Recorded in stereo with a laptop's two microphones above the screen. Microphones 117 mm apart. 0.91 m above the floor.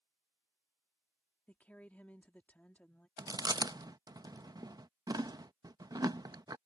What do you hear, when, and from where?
1.5 s a woman speaking: 10° left (ahead or behind)
3.2 s chewing: 35° right (ahead or behind)